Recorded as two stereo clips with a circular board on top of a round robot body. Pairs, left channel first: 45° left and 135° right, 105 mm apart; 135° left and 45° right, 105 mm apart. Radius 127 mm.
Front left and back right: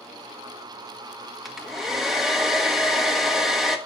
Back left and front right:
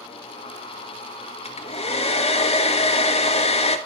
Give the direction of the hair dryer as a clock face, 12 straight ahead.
7 o'clock.